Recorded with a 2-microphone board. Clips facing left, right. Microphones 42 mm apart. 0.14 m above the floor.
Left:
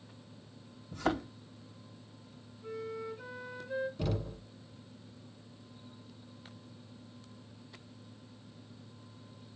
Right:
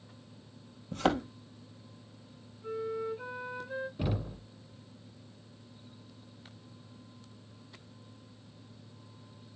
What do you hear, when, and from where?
0.9 s a thud: 75° right (ahead or behind), 1.8 m
2.6 s a flute: 15° right (ahead or behind), 1.7 m
4.0 s knocking: 20° right (ahead or behind), 1.0 m